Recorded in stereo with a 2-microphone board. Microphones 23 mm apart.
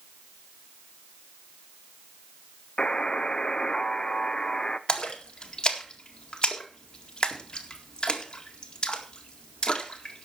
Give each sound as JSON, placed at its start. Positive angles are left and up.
{"t": 2.8, "sound": "a buzzer", "side_deg": 35, "distance_m": 0.7}
{"t": 4.9, "sound": "a splash", "side_deg": 40, "distance_m": 1.9}